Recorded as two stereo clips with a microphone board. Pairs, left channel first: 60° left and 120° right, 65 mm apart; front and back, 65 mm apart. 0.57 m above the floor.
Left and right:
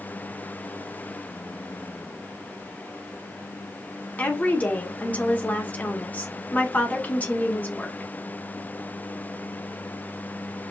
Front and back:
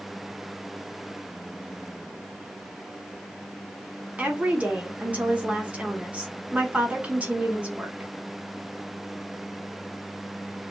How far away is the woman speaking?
About 1.6 m.